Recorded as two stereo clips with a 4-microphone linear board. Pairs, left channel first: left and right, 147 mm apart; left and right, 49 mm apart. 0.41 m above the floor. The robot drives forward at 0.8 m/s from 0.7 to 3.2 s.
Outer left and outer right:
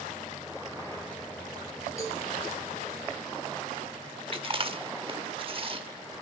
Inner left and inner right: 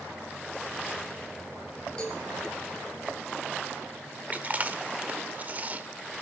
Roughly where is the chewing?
Right.